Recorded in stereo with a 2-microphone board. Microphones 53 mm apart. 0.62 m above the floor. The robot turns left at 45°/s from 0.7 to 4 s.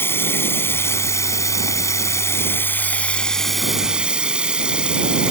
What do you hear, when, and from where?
0.0 s running water: 130° left; by 5.3 s 15° right